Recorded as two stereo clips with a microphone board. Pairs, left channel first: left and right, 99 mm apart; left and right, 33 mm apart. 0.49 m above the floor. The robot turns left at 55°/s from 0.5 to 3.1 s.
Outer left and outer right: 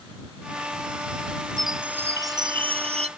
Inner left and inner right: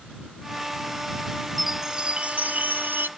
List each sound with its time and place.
1.6 s a chime: 5° left; by 3.1 s 80° right